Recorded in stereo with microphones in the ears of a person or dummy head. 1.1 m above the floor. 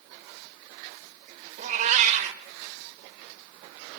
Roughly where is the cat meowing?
Right.